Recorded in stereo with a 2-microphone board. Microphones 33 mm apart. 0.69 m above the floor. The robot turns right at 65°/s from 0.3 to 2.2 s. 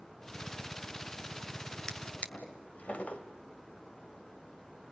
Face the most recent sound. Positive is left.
turn(degrees=45)  # may be behind; listen again after turning